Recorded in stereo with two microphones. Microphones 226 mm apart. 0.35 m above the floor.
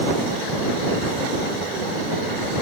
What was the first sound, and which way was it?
Only background noise.